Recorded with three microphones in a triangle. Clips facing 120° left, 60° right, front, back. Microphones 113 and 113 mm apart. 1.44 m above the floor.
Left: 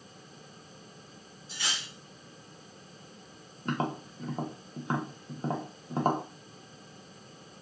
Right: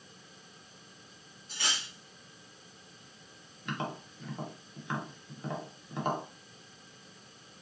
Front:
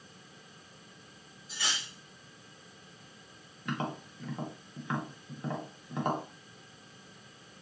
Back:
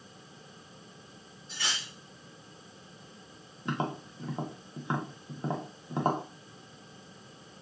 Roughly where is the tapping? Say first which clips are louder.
Left 5 dB, back 3 dB; behind left.